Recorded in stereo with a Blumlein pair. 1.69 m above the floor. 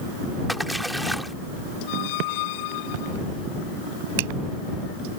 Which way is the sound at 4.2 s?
50° right.